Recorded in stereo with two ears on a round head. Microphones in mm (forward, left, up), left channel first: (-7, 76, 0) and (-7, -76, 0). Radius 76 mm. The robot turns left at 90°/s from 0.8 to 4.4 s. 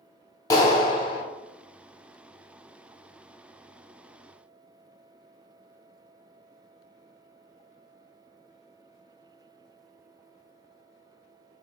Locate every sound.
0.5 s a clap: 140° left, 0.8 m; by 1.2 s 100° left, 0.8 m